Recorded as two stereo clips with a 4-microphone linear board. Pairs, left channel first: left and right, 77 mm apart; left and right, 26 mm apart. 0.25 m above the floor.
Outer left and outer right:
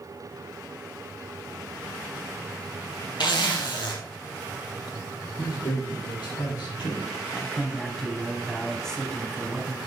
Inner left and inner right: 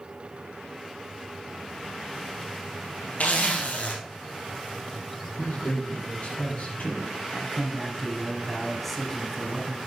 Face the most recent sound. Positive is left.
turn(degrees=10)  # may be behind; listen again after turning